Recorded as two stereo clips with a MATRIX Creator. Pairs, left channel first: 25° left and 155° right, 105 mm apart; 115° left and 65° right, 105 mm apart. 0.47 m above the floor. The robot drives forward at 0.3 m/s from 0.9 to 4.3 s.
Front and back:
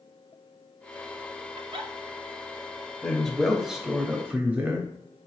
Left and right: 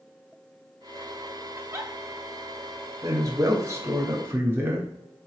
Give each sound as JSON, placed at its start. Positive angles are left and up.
{"t": 1.6, "sound": "a giggle", "azimuth_deg": -125, "distance_m": 0.6}
{"t": 3.0, "sound": "a man speaking", "azimuth_deg": -55, "distance_m": 0.8}